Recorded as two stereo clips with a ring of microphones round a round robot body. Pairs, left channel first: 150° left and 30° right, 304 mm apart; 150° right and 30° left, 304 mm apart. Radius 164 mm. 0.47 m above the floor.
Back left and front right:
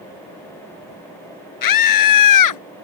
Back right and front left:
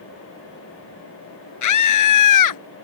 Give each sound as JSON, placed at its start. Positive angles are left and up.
{"t": 1.6, "sound": "a scream", "azimuth_deg": 175}